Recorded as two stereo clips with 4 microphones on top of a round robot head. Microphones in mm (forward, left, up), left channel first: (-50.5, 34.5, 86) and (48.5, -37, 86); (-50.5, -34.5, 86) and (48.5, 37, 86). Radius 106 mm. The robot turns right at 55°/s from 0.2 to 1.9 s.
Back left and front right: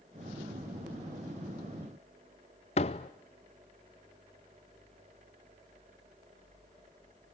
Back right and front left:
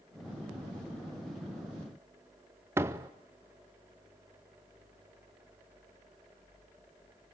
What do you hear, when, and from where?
2.8 s a door slam: 105° left, 0.5 m